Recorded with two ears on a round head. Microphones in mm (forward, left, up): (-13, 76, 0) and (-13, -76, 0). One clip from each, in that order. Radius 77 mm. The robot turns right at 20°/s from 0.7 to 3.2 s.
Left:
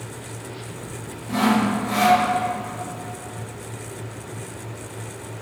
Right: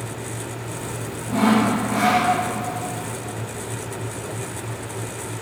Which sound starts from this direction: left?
Sawing, at 1.3 s.